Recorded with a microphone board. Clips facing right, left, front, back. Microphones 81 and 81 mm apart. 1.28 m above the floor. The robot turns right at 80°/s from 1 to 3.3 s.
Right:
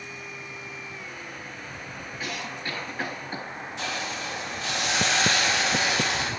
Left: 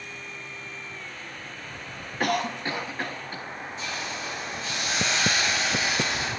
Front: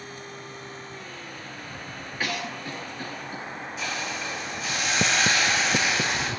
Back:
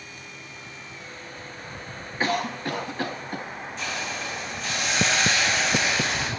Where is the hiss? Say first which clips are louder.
Right 3 dB, even; 85° right, 2 m.